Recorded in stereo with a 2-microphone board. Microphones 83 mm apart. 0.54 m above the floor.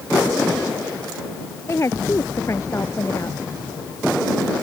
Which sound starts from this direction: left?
A woman speaking, at 1.7 s.